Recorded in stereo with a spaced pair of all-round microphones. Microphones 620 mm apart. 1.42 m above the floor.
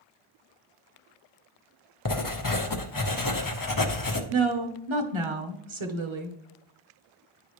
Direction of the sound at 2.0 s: 35° left (ahead or behind).